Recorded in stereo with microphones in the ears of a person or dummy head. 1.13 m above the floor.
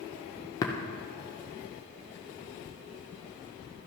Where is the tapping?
15° left (ahead or behind), 0.8 m.